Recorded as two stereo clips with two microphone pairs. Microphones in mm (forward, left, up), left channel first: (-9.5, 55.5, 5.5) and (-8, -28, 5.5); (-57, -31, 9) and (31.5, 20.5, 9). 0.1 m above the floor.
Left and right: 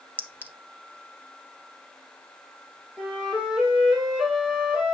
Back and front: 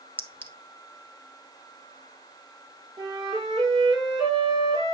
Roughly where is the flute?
Ahead.